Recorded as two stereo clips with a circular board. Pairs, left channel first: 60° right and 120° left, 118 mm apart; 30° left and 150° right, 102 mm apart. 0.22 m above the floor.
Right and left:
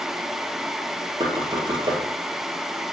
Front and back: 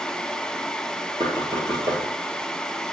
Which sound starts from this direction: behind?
Knocking, at 1.2 s.